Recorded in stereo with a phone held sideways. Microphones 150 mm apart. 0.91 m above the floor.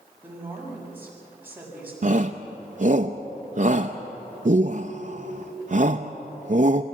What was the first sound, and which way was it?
A woman speaking, 10° right (ahead or behind).